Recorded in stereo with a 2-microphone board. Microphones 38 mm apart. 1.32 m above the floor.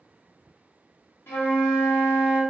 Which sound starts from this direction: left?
A flute, at 1.3 s.